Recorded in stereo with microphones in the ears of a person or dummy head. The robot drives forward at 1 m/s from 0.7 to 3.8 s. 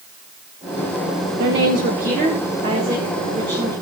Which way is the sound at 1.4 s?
60° right (ahead or behind).